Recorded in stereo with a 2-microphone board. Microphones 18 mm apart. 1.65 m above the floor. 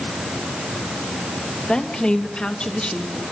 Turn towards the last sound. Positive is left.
turn(degrees=65)  # may be behind; listen again after turning